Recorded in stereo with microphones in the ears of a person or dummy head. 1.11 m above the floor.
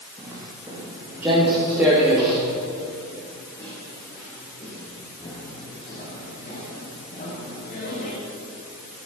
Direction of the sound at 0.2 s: 25° right (ahead or behind).